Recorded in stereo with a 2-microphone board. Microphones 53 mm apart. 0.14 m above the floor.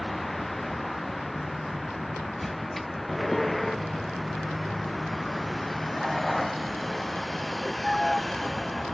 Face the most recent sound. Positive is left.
turn(degrees=5)  # may be behind; listen again after turning